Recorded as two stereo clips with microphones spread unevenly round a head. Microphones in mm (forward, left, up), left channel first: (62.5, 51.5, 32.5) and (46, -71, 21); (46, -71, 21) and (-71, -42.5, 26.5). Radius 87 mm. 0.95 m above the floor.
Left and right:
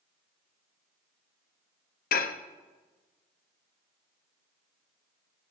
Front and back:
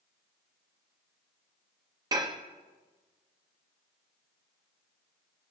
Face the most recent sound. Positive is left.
turn(degrees=95)